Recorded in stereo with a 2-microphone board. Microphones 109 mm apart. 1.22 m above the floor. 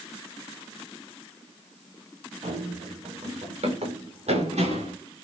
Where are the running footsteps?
80° right, 6.5 m; by 4.9 s 75° right (ahead or behind), 8 m.